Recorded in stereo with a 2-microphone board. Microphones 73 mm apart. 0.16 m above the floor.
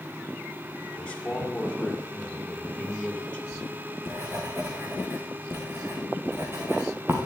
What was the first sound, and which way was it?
A man speaking, 15° left (ahead or behind).